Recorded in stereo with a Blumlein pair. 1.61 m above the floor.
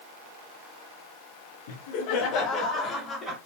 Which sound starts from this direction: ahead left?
Laughter, at 1.7 s.